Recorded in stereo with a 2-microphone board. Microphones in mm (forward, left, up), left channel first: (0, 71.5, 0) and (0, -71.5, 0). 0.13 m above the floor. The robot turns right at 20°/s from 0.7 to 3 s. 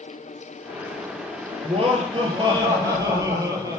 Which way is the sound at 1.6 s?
50° right (ahead or behind).